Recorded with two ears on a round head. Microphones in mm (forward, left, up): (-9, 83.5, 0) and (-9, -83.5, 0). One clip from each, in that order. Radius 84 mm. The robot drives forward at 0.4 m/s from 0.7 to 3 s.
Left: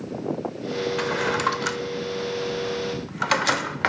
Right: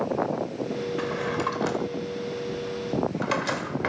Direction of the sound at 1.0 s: 40° left (ahead or behind).